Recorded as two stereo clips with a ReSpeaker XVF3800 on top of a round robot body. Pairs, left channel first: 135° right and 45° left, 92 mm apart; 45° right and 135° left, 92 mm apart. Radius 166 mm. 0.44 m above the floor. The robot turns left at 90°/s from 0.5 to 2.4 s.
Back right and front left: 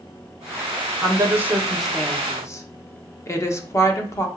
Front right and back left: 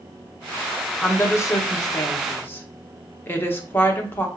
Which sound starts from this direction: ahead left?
A woman speaking, at 1.0 s.